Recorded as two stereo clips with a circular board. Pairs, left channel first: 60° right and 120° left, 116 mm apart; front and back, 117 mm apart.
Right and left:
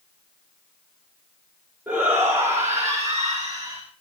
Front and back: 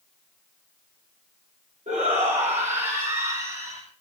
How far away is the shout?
About 3.5 m.